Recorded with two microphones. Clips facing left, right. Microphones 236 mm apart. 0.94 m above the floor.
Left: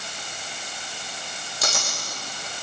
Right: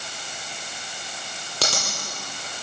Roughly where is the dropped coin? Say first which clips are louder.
Right 3 dB; right.